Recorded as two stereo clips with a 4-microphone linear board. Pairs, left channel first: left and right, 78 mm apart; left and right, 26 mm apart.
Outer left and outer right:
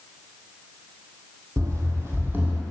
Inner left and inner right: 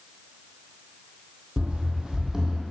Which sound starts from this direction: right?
Running footsteps, at 1.6 s.